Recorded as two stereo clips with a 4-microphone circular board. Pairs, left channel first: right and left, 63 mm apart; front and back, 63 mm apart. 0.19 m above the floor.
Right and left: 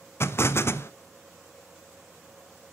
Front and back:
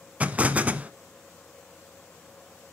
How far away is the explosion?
About 0.7 m.